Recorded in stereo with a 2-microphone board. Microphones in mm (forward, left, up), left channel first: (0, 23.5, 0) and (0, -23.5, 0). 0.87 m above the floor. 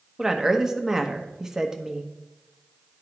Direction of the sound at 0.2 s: 10° right (ahead or behind).